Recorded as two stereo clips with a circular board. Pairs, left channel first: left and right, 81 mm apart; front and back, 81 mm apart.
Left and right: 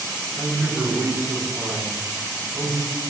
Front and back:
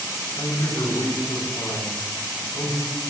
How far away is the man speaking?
About 6.5 m.